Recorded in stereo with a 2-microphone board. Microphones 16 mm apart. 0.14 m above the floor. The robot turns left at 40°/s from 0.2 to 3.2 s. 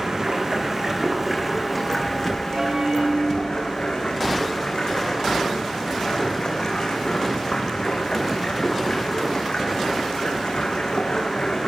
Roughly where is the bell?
Right.